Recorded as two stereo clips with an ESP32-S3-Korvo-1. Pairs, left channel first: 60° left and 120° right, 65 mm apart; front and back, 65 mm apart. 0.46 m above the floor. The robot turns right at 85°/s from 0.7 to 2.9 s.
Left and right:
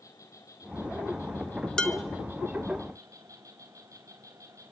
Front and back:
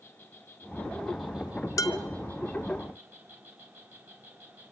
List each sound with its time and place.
0.0 s an insect: 45° left, 4 m; by 4.7 s 125° right, 4 m
1.8 s dishes clattering: 20° right, 1.6 m; by 2.0 s straight ahead, 1.6 m